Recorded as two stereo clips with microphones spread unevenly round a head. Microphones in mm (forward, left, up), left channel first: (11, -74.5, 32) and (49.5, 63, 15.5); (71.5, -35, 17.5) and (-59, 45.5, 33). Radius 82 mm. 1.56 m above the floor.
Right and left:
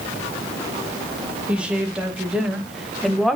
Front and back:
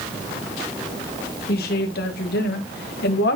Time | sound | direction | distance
1.5 | a woman speaking | 10° right | 2.5 m